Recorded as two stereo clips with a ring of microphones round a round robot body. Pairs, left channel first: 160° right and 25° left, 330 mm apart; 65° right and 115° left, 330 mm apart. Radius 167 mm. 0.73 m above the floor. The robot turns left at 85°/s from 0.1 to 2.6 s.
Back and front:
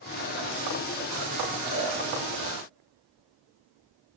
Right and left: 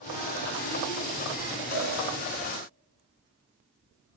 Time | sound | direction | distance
1.7 | a cowbell | 60° right | 8 m